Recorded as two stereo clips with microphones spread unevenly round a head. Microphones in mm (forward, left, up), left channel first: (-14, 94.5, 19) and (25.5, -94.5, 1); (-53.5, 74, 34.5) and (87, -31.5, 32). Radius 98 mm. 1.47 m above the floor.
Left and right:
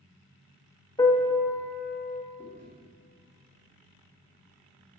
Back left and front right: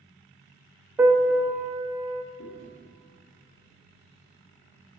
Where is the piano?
45° left, 0.7 m.